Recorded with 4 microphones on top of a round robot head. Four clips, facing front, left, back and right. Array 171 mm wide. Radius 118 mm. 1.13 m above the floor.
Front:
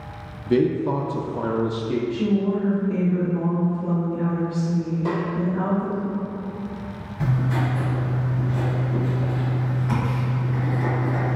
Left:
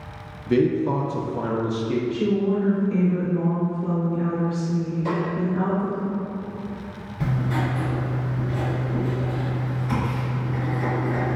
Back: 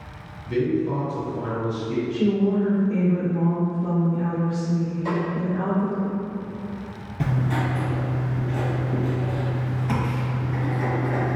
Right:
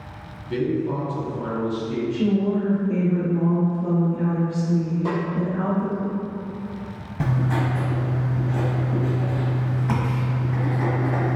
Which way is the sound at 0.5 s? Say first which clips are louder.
Left 4 dB, front 3 dB; 35° left.